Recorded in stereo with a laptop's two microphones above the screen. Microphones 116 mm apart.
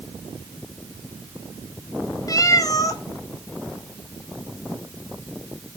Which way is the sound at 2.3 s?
30° left (ahead or behind).